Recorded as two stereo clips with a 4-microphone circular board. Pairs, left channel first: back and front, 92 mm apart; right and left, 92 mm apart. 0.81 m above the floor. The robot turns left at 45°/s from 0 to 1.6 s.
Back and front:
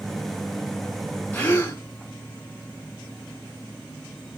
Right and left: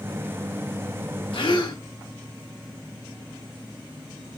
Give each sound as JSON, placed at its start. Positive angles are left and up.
{"t": 1.3, "sound": "a gasp", "azimuth_deg": -105, "distance_m": 1.9}